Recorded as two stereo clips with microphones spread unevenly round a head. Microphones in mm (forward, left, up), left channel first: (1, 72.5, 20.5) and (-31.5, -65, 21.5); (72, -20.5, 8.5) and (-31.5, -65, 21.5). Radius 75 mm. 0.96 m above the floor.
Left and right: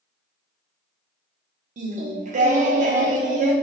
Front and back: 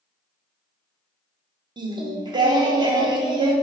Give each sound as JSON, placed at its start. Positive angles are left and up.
{"t": 1.8, "sound": "singing", "azimuth_deg": -110, "distance_m": 0.5}